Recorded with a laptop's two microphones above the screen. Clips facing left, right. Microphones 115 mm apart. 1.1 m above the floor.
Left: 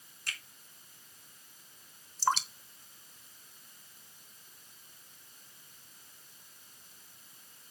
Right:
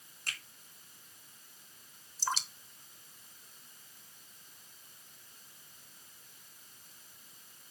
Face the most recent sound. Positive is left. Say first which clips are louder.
# left 7 dB
turn(degrees=60)  # may be behind; listen again after turning